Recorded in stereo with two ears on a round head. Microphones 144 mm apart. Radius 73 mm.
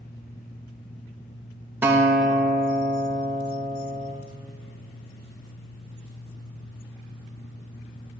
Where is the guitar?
10° right (ahead or behind), 0.6 m.